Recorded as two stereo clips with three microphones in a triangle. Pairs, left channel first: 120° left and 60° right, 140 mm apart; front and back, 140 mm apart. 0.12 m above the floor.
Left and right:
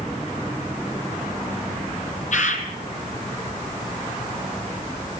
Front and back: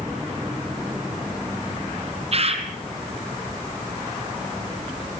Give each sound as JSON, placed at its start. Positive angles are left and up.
{"t": 2.3, "sound": "a bird", "azimuth_deg": 140, "distance_m": 3.5}